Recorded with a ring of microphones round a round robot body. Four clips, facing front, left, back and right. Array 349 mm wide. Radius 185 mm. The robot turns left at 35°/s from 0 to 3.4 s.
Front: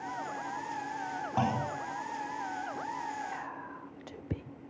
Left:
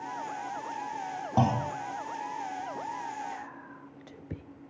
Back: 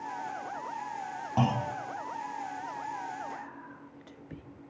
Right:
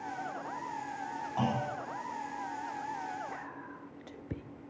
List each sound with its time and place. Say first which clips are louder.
1.4 s a clunk: left 6 dB, back 2 dB; 105° left, 2.5 m; by 1.7 s 95° left, 2.5 m
3.3 s whispering: left 1 dB, front 2 dB; 5° left, 1.1 m; by 4.4 s straight ahead, 1.1 m